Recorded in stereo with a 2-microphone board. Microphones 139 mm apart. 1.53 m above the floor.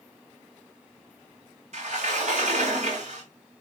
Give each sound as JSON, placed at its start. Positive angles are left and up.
{"t": 1.7, "sound": "a sliding door", "side_deg": -55, "distance_m": 3.0}